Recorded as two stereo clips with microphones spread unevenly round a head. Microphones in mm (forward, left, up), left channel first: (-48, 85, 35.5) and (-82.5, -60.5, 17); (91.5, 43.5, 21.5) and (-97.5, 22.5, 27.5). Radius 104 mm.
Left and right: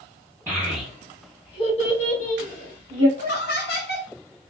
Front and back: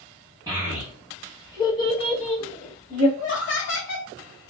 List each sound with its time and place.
0.5 s a child speaking: 170° right, 0.7 m; by 3.1 s 60° left, 1.6 m
3.2 s laughter: 30° left, 1.2 m